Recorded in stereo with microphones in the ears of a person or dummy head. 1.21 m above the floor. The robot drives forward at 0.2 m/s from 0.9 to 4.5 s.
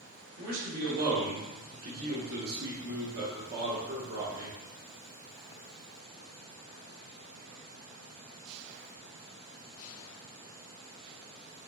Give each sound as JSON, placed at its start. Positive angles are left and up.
{"t": 0.4, "sound": "a man speaking", "side_deg": -45, "distance_m": 0.8}